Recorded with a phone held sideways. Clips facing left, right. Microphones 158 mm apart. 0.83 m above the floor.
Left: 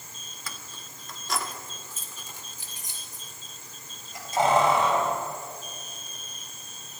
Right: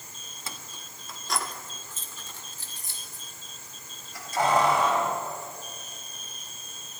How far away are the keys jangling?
About 0.7 m.